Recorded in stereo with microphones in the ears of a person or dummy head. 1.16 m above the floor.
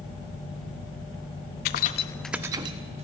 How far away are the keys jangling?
About 0.8 m.